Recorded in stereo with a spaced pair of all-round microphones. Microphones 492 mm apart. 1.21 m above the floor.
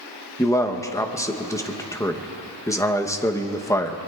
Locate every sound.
0.4 s a man speaking: 5° left (ahead or behind), 0.8 m